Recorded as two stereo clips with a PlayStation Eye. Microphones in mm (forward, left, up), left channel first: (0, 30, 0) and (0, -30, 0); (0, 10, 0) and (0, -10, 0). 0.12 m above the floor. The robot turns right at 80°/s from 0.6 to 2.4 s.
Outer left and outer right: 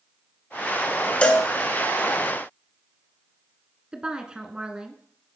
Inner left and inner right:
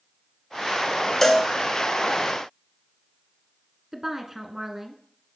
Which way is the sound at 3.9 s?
15° right (ahead or behind).